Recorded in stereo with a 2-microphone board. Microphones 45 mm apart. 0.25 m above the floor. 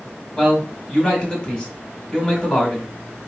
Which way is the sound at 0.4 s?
15° left (ahead or behind).